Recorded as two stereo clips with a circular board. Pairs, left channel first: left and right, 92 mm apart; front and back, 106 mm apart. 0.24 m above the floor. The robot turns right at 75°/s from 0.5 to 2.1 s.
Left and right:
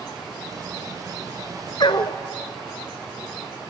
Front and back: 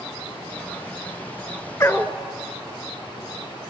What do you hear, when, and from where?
1.8 s a dog barking: 60° left, 1.0 m; by 2.2 s 80° left, 1.0 m